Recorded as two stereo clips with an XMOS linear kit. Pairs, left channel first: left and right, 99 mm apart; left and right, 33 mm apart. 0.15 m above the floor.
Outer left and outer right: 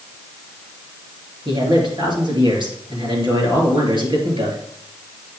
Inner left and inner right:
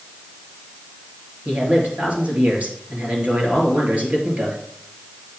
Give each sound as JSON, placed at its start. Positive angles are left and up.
{"t": 1.4, "sound": "a man speaking", "side_deg": -50, "distance_m": 3.0}